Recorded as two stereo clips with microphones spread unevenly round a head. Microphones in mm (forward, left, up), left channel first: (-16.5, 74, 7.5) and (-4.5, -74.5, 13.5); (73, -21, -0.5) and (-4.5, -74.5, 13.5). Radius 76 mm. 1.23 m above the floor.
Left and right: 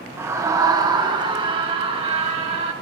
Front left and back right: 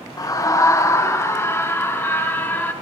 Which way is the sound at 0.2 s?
10° right.